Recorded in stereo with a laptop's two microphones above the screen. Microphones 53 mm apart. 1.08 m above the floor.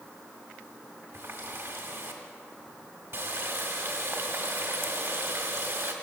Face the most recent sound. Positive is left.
turn(degrees=-55)  # may be behind; listen again after turning